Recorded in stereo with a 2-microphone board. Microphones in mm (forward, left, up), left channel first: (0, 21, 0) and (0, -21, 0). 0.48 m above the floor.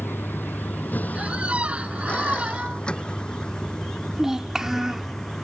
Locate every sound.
0.0 s a vehicle: 55° left (ahead or behind); by 5.4 s 10° left (ahead or behind)
1.1 s a squeak: 30° right (ahead or behind)
4.1 s a child speaking: 10° right (ahead or behind)